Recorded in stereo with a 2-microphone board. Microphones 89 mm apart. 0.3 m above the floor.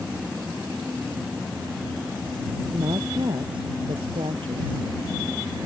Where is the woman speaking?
60° right (ahead or behind); by 4.8 s 75° right (ahead or behind).